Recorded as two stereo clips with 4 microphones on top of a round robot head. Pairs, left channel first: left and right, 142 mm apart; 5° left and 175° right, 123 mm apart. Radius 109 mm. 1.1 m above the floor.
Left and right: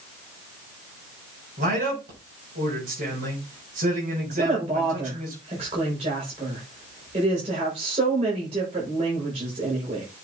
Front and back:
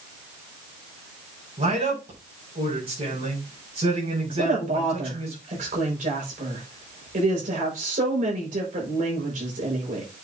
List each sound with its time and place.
1.6 s a man speaking: 125° right, 5.5 m
4.4 s a woman speaking: 140° right, 4.5 m